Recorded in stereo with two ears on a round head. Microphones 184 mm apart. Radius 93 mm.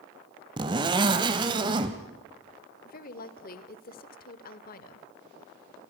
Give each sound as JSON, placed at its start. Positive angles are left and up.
{"t": 0.6, "sound": "a zipper", "side_deg": -25, "distance_m": 1.5}
{"t": 2.9, "sound": "a woman speaking", "side_deg": 50, "distance_m": 1.3}